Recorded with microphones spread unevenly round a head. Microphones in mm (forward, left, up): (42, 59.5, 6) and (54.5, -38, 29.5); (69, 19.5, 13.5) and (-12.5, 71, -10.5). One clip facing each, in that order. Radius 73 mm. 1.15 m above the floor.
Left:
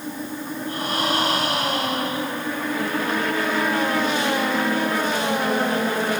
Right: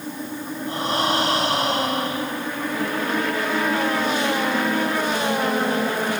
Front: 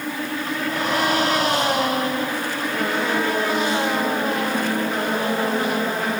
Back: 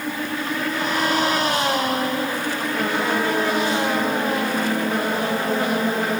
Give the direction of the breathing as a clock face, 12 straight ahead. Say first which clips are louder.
Right 2 dB, front 2 dB; 1 o'clock.